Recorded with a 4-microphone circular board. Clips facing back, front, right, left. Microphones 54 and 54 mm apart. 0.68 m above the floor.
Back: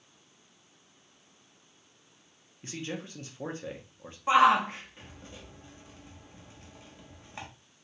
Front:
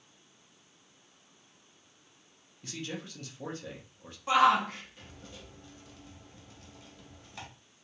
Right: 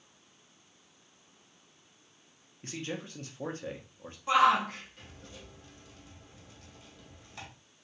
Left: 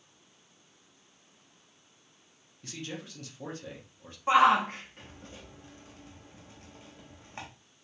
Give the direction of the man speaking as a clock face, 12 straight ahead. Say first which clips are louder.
Back 2 dB, right 2 dB; 4 o'clock.